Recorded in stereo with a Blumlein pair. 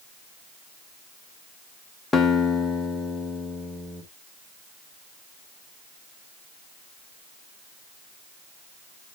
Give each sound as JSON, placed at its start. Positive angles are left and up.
{"t": 2.1, "sound": "a guitar", "azimuth_deg": 10, "distance_m": 1.3}